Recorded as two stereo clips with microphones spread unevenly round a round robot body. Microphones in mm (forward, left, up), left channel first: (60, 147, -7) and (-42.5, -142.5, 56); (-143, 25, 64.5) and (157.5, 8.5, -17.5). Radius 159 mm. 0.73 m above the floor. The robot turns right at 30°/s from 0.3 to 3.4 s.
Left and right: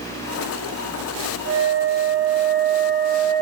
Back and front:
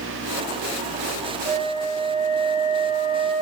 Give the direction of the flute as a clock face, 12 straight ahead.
2 o'clock.